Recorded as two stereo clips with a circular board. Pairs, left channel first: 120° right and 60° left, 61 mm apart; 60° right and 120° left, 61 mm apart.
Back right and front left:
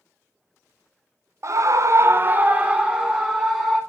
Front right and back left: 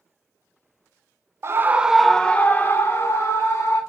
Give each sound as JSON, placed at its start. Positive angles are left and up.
{"t": 1.4, "sound": "a scream", "azimuth_deg": 85, "distance_m": 0.9}